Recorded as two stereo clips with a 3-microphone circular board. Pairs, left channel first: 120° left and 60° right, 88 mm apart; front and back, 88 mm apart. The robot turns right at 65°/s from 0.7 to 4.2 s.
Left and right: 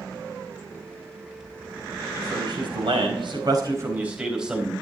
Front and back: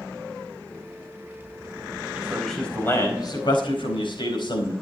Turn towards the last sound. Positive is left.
turn(degrees=20)